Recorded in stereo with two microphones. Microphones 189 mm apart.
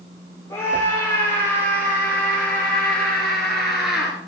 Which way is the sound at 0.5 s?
15° left (ahead or behind).